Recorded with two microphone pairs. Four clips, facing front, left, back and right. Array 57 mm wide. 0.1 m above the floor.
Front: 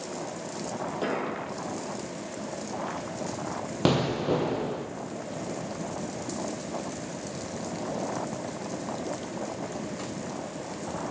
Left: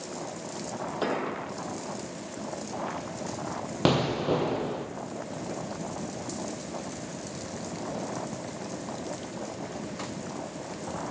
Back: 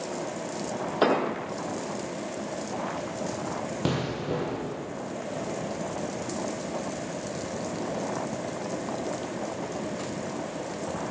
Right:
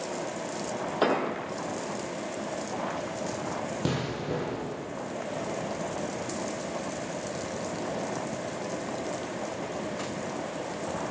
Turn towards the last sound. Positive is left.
turn(degrees=65)